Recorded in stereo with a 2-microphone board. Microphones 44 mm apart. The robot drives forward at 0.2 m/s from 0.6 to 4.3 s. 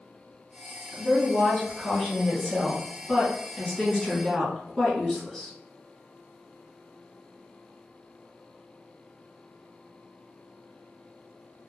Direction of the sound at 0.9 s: 10° left (ahead or behind).